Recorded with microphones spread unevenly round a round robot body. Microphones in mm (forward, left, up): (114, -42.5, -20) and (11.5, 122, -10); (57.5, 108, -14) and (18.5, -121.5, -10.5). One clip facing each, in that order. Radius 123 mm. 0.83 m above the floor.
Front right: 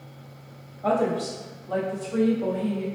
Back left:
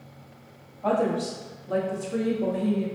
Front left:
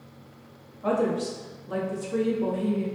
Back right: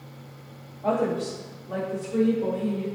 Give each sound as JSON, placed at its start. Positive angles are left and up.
{"t": 0.8, "sound": "a woman speaking", "azimuth_deg": 15, "distance_m": 1.4}